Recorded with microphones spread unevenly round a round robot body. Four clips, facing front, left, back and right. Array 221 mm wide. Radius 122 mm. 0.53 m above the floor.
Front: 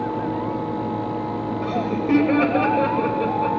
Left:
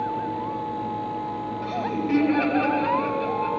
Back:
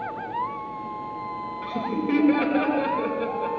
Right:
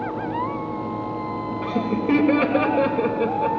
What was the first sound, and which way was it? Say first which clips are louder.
Laughter: right 4 dB, front 3 dB; 60° right.